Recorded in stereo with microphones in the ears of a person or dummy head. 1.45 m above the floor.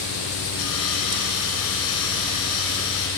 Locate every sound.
0.6 s sawing: 65° left (ahead or behind), 4.5 m